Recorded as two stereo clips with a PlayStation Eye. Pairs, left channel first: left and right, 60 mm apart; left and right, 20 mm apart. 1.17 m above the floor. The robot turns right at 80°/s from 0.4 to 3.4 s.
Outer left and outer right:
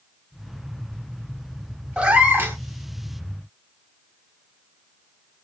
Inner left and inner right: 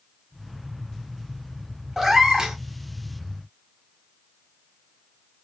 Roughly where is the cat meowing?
Behind right.